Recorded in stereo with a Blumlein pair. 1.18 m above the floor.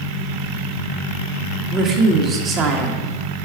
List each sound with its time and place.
1.7 s a woman speaking: 30° right, 1.6 m